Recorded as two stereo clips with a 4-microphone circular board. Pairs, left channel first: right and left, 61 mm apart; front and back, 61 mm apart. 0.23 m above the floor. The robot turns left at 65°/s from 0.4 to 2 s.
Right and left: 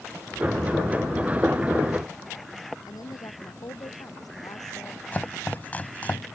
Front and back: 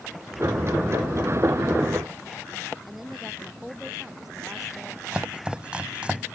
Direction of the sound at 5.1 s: 125° right.